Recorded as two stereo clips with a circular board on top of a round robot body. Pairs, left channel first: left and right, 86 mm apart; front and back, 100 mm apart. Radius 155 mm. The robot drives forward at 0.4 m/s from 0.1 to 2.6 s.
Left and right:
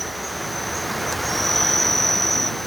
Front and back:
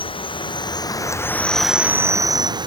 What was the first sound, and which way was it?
An insect, straight ahead.